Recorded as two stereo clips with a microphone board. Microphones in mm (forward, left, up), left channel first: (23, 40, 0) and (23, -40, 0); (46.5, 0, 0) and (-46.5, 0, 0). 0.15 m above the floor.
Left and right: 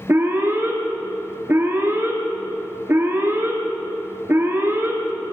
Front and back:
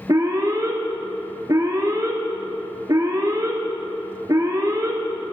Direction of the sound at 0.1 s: 140° right.